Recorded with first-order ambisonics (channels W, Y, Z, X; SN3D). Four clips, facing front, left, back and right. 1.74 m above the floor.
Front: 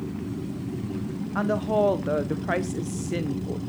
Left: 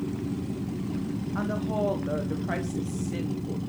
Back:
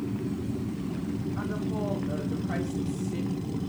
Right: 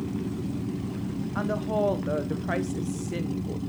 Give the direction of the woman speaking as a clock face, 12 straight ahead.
12 o'clock.